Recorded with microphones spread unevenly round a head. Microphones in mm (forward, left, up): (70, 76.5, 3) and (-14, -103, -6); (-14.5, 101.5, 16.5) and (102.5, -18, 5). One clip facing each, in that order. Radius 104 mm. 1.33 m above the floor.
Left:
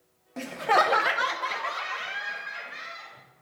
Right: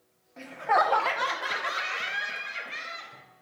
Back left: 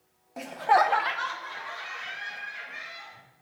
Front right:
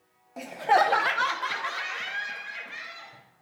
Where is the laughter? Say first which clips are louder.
Left 2 dB, even; 45° left, 0.6 m; by 3.2 s 65° right, 1.7 m.